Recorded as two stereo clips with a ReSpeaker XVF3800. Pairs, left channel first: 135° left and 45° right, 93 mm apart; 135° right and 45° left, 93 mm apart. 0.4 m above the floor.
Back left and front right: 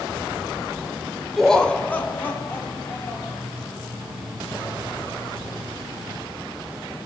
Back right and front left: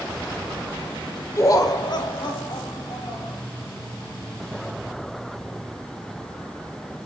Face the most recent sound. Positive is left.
turn(degrees=-160)